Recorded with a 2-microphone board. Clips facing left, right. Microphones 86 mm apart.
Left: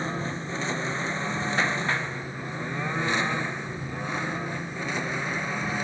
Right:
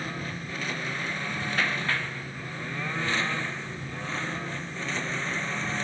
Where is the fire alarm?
I don't hear a fire alarm.